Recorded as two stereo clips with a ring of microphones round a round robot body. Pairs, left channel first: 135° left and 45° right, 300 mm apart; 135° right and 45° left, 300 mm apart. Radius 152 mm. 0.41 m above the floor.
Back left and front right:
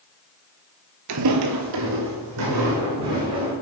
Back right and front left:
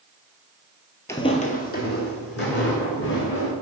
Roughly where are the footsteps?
Ahead right.